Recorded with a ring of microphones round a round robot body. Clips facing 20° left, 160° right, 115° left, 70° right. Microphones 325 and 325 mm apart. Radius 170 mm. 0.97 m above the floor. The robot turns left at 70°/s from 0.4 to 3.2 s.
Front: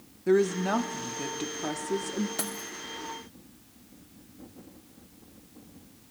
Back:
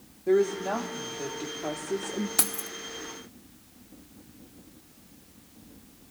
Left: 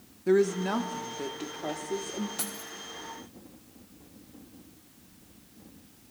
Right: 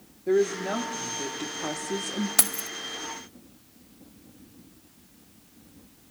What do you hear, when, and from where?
0.3 s a woman speaking: 65° left, 1.0 m; by 2.3 s 65° right, 1.0 m
2.4 s keys jangling: 90° right, 0.6 m; by 2.7 s 110° right, 0.6 m